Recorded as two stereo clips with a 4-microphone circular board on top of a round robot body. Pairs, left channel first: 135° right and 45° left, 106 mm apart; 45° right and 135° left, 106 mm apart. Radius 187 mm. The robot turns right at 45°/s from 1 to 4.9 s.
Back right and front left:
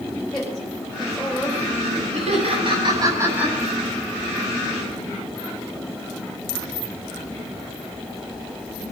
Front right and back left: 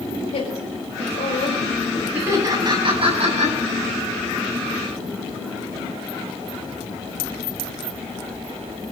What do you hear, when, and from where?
0.3 s a woman speaking: 55° right, 6 m; by 2.0 s 5° right, 6 m
2.1 s laughter: 60° left, 8.5 m; by 3.5 s 125° left, 8.5 m